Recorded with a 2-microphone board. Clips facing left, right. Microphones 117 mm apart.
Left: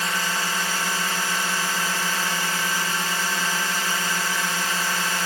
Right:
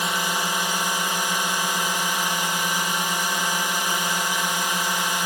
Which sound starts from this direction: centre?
A drone, at 0.0 s.